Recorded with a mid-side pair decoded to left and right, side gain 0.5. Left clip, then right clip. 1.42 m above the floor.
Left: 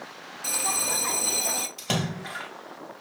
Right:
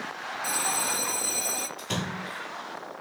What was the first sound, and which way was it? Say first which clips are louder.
A bell: left 1 dB; 25° left.